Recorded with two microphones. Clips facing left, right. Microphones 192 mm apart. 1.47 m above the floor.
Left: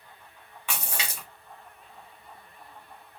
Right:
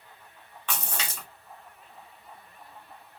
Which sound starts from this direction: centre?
A splash, at 0.7 s.